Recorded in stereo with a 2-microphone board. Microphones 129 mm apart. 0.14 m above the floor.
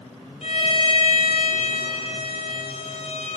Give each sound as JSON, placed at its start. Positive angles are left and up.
{"t": 0.4, "sound": "a violin", "side_deg": 55, "distance_m": 5.0}